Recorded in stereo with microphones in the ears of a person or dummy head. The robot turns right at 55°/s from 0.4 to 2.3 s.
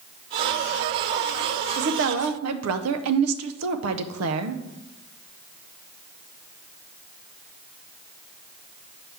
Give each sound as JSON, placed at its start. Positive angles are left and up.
{"t": 1.8, "sound": "a woman speaking", "side_deg": -50, "distance_m": 0.5}